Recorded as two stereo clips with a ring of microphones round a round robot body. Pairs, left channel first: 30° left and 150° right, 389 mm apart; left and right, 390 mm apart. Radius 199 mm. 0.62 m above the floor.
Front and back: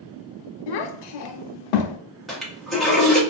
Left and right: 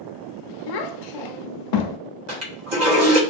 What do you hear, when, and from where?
0.7 s a child speaking: 60° left, 0.5 m
2.3 s a toilet flushing: 60° right, 1.1 m